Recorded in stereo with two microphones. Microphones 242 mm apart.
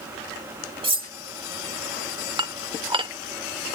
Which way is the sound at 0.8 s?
20° right (ahead or behind).